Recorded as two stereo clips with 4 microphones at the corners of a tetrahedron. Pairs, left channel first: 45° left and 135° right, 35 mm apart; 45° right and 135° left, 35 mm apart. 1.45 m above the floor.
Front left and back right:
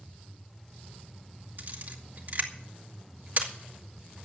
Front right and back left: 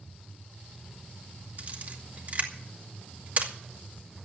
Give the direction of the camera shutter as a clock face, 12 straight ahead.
6 o'clock.